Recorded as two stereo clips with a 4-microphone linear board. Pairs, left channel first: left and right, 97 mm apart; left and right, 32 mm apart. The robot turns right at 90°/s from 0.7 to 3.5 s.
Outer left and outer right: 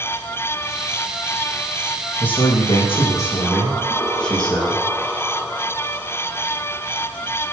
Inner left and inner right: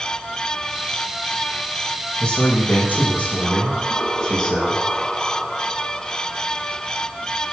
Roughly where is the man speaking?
Ahead left.